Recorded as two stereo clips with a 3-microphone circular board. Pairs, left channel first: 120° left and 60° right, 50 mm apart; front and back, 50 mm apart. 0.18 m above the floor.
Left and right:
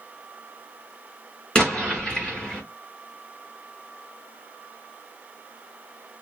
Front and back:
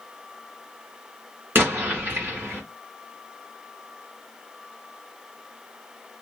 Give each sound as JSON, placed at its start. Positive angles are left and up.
{"t": 1.6, "sound": "an explosion", "azimuth_deg": -175, "distance_m": 2.0}